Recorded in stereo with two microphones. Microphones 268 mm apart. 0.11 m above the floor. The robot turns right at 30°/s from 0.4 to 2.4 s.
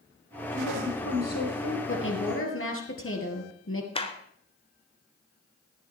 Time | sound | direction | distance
0.5 | a woman speaking | 65° left | 8.5 m
1.9 | a woman speaking | 45° left (ahead or behind) | 2 m
4.0 | a clap | 20° left (ahead or behind) | 1.0 m